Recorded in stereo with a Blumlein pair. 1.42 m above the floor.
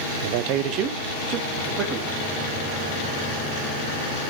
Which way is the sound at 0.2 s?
55° right.